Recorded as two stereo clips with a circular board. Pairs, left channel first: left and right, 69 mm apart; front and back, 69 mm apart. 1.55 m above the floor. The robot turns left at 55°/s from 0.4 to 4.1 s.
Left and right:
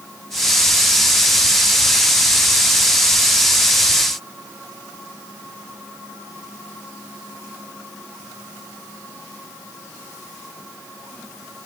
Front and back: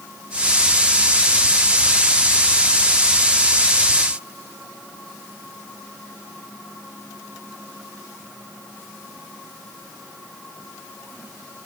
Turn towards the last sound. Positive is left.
No sound to turn to.